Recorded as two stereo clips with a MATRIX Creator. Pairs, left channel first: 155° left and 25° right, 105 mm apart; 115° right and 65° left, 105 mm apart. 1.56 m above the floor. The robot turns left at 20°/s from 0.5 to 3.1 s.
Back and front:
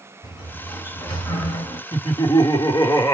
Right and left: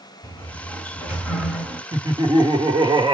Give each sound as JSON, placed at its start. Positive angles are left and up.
{"t": 0.2, "sound": "a sliding door", "azimuth_deg": 180, "distance_m": 1.7}
{"t": 1.9, "sound": "laughter", "azimuth_deg": 120, "distance_m": 1.2}